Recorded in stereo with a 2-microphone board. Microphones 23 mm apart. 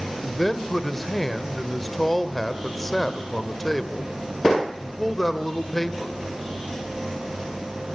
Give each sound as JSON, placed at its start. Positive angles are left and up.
{"t": 0.2, "sound": "a man speaking", "side_deg": 10, "distance_m": 1.7}